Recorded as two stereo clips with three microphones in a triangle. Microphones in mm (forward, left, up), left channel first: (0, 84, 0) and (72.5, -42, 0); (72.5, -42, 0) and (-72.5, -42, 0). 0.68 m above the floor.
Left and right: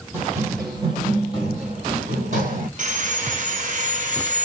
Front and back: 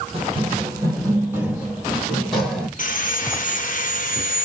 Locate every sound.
0.1 s running footsteps: 135° right, 1.3 m; by 2.7 s 85° right, 1.8 m
2.8 s sawing: 25° right, 0.7 m